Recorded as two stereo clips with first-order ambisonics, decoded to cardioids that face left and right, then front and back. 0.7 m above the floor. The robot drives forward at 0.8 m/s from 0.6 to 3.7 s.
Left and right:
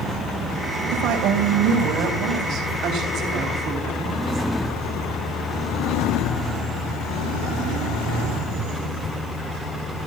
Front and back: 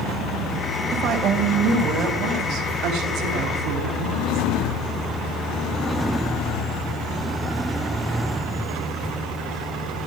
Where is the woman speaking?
115° right, 3 m; by 4.5 s 140° right, 4.5 m.